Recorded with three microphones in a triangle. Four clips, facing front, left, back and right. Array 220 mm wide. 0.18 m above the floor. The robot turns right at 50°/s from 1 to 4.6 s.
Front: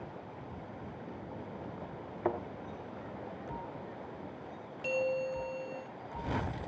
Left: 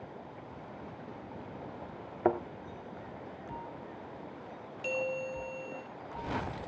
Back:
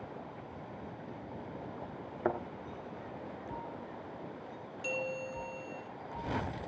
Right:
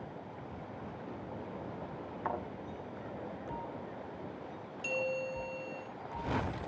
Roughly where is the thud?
Left.